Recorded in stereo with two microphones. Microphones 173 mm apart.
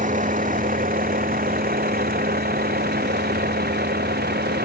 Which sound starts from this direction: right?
A vehicle, at 0.0 s.